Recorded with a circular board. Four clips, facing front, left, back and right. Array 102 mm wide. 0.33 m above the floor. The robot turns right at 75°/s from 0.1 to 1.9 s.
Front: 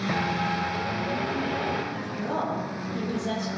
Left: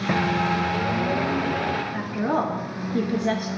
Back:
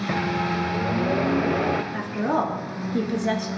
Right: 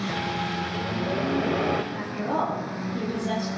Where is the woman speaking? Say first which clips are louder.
Left 3 dB, back 6 dB; 135° left, 4.5 m.